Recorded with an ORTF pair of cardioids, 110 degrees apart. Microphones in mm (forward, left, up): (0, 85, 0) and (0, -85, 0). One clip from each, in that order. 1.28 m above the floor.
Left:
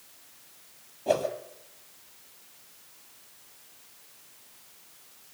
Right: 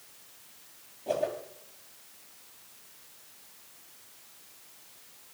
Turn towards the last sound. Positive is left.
turn(degrees=40)